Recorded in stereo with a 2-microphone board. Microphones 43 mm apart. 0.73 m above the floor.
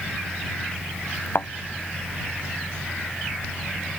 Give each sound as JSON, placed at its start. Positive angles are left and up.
{"t": 1.4, "sound": "a thud", "side_deg": 60}